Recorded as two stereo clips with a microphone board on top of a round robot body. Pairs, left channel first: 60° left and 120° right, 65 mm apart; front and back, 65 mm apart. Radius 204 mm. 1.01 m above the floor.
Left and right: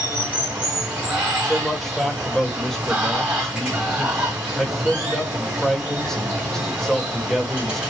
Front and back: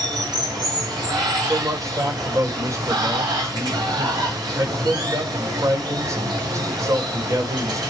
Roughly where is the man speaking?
Behind left.